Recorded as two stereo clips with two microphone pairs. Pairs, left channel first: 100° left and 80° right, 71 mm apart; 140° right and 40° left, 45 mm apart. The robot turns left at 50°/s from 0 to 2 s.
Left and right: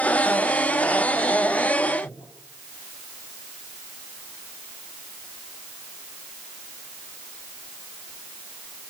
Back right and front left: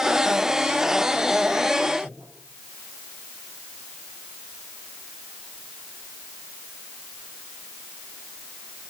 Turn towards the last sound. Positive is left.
turn(degrees=80)